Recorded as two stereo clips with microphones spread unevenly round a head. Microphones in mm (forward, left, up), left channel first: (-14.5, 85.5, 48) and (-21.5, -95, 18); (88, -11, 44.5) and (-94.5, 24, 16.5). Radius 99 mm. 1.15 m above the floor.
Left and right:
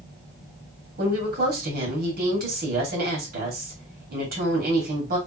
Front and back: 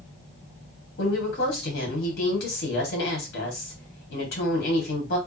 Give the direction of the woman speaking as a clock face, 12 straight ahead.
2 o'clock.